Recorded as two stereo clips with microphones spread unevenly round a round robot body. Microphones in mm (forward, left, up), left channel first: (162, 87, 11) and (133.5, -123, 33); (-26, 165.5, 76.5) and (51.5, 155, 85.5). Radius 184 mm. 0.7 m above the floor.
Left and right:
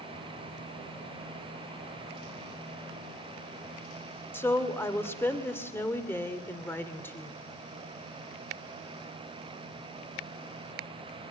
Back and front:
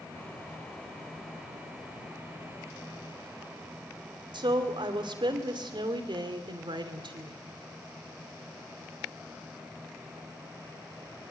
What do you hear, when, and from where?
4.3 s a woman speaking: 5° left, 2.5 m